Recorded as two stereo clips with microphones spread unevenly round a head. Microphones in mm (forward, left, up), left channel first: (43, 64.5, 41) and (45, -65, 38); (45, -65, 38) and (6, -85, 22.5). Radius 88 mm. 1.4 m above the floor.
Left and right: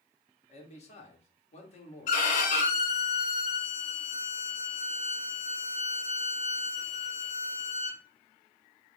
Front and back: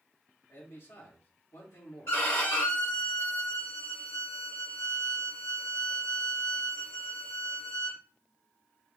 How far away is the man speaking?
About 1.4 m.